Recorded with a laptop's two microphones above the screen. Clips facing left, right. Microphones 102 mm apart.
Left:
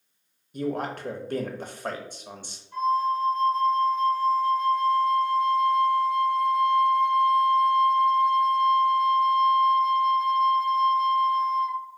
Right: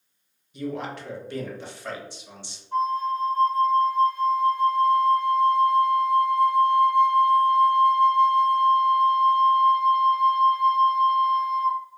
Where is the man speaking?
45° left (ahead or behind), 0.6 m.